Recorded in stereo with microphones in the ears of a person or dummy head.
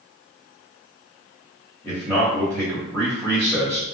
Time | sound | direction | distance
1.8 | a man speaking | 10° left (ahead or behind) | 0.9 m